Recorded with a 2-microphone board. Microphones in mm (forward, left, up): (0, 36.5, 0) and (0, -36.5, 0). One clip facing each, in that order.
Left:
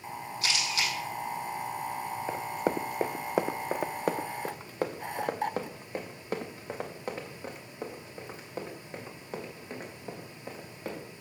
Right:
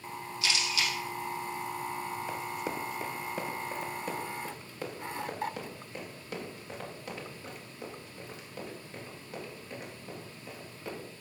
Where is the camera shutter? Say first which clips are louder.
Even; 40° left (ahead or behind), 3.5 m.